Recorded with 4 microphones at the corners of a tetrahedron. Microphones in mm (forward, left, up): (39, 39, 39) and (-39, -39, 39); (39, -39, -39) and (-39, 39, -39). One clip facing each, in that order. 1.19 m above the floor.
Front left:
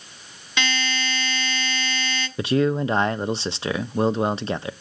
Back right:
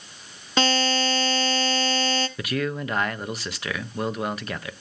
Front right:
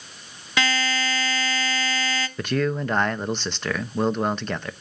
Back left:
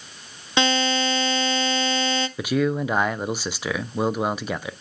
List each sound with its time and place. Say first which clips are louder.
0.6 s a buzzer: back right 5 dB, back left 3 dB; 165° right, 0.9 m
2.4 s a man speaking: front left 7 dB, back left 1 dB; 65° left, 0.7 m